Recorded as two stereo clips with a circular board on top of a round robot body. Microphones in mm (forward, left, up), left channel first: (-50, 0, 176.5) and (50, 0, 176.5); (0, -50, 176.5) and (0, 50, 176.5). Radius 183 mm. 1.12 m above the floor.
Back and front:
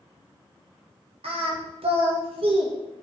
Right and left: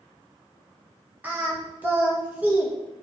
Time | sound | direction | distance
1.2 | singing | 15° left | 2 m